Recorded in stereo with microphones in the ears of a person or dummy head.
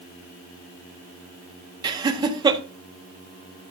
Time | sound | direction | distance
1.8 | laughter | 25° right (ahead or behind) | 1.6 m